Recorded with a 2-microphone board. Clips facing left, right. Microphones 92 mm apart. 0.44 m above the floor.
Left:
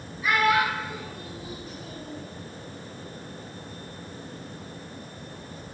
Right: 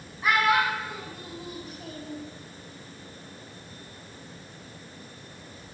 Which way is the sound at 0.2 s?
55° right (ahead or behind).